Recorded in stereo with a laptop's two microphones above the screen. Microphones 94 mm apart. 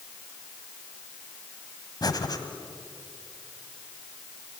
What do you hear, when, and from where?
2.0 s breathing: 45° left (ahead or behind), 1.5 m